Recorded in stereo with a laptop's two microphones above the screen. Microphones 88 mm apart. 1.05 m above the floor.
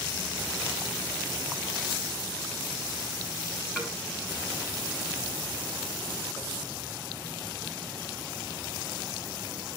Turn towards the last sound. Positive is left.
turn(degrees=5)  # may be behind; listen again after turning